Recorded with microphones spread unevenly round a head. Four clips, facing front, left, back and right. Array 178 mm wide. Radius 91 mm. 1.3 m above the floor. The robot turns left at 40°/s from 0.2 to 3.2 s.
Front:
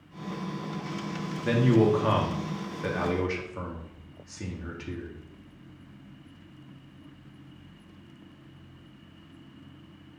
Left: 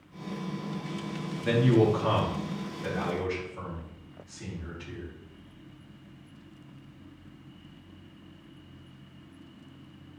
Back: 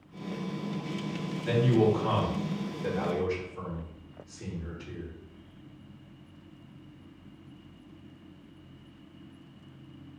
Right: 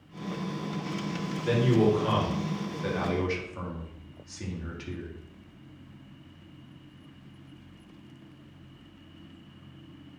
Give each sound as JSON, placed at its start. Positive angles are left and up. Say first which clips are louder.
{"t": 1.4, "sound": "a man speaking", "louder": "left 1 dB, front 2 dB", "azimuth_deg": 45, "distance_m": 3.0}